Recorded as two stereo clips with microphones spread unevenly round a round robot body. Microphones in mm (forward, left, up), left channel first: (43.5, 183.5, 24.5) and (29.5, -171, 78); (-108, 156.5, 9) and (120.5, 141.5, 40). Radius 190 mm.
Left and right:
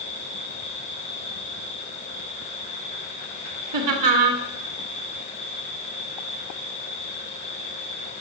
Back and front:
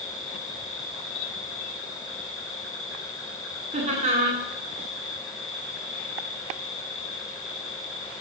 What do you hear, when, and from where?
0.0 s an insect: 155° left, 3 m
3.7 s laughter: 70° right, 1.7 m